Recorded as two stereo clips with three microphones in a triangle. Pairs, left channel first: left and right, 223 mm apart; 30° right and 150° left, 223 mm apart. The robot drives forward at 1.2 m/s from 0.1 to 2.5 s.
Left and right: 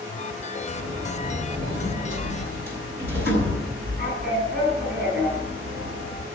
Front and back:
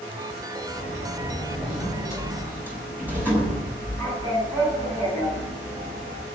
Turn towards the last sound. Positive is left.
turn(degrees=-130)